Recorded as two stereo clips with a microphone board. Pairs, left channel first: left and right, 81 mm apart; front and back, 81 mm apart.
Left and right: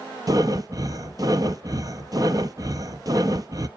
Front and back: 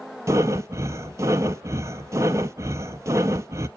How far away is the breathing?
About 0.5 m.